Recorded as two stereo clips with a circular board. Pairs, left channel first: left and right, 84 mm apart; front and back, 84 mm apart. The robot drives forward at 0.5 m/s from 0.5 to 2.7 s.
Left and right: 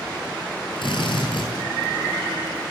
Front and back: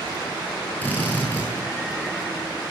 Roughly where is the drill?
Left.